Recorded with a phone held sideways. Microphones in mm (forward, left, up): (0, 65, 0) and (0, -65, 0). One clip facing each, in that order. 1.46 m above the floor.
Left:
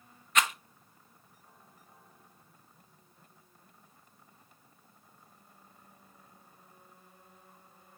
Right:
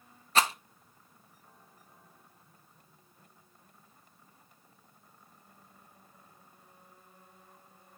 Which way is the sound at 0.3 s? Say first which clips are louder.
Right 2 dB; 35° right (ahead or behind).